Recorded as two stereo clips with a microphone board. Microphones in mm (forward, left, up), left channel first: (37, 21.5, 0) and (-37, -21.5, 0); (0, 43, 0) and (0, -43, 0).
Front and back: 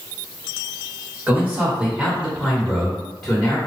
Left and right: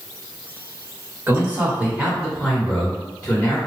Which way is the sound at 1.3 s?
110° right.